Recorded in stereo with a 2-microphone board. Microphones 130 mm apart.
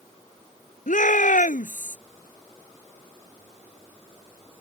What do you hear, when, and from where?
0.9 s a shout: 75° left (ahead or behind); by 2.0 s 70° left (ahead or behind)